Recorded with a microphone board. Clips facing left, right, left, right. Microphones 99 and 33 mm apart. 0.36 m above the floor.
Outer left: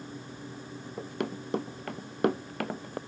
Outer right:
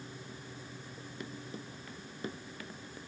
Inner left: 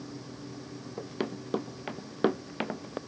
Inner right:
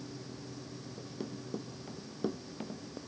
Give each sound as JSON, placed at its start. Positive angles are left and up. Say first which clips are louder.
{"t": 1.0, "sound": "running footsteps", "louder": "outer left 12 dB, inner left 9 dB", "side_deg": 75}